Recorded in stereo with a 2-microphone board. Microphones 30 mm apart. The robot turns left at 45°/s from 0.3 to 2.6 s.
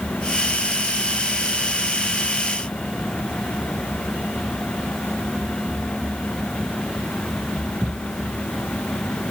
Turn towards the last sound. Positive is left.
No sound to turn to.